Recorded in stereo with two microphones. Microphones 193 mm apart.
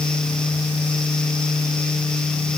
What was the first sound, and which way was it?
Only background noise.